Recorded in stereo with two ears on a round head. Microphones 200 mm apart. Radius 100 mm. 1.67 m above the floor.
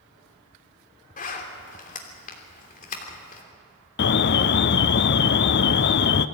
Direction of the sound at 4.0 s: 50° left (ahead or behind).